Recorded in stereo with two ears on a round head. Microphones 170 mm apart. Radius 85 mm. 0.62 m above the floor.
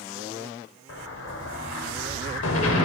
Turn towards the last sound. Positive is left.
turn(degrees=80)